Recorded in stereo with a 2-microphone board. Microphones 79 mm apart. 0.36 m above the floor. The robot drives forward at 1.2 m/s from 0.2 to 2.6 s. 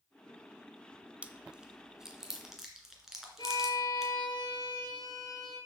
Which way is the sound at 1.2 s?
15° right (ahead or behind).